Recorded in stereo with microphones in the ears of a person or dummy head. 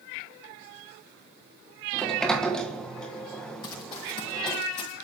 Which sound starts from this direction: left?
Running footsteps, at 3.6 s.